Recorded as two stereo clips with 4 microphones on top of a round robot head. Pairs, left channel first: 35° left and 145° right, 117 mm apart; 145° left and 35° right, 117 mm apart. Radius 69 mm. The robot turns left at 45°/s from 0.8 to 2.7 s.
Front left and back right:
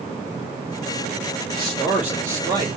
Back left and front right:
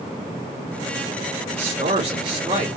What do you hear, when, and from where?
1.5 s a man speaking: 50° right, 1.7 m; by 2.7 s 100° right, 1.7 m